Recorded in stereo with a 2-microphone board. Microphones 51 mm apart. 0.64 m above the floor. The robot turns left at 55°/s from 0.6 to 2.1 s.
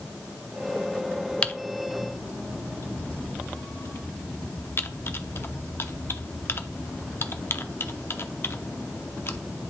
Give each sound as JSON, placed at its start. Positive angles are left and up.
{"t": 1.4, "sound": "typing on a keyboard", "side_deg": 20, "distance_m": 0.6}